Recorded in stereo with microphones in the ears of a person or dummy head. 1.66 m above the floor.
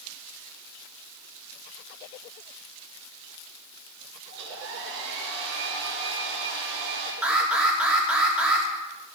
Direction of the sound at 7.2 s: 5° right (ahead or behind).